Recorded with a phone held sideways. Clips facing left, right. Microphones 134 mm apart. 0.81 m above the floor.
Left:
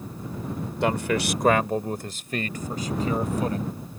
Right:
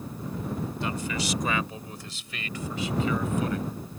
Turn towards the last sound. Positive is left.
turn(degrees=35)  # may be behind; listen again after turning